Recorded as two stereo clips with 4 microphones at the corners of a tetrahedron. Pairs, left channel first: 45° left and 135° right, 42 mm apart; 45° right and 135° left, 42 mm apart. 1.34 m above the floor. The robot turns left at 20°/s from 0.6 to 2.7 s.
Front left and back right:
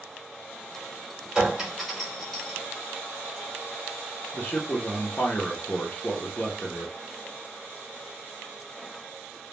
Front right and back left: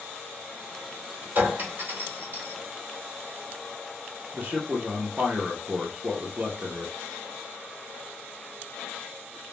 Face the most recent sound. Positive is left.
turn(degrees=90)